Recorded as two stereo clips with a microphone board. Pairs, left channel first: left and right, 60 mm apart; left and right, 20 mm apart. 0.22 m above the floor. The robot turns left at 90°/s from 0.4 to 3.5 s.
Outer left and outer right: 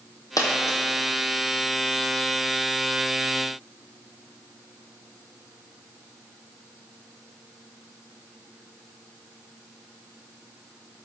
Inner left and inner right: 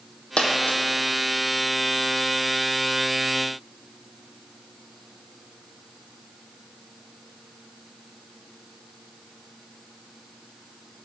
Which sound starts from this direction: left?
A dropped coin, at 0.4 s.